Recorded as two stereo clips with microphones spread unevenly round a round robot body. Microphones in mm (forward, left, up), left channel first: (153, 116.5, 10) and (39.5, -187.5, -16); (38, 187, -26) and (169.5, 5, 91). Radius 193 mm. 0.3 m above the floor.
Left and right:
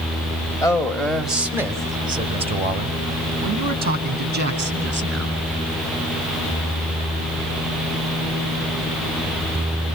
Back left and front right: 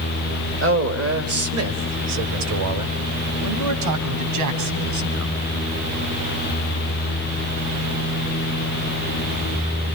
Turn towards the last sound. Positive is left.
turn(degrees=-60)